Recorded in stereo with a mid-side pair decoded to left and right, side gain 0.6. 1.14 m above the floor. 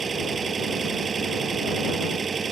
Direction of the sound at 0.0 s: 30° right.